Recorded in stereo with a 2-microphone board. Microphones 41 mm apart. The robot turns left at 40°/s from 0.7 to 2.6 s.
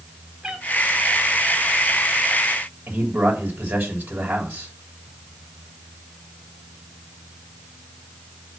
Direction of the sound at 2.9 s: 55° right (ahead or behind).